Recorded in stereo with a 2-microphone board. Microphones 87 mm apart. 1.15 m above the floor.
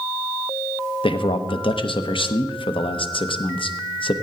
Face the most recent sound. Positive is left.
turn(degrees=80)